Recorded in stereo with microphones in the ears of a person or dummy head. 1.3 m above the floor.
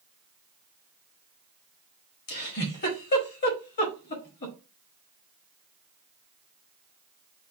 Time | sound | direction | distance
2.3 | a giggle | 40° left (ahead or behind) | 1.3 m